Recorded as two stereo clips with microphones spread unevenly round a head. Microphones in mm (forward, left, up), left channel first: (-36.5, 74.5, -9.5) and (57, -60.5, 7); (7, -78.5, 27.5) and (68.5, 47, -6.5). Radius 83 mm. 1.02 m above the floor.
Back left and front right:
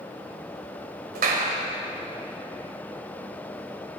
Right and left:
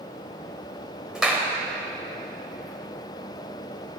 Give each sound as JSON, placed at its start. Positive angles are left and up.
{"t": 1.1, "sound": "a clap", "azimuth_deg": -20, "distance_m": 4.5}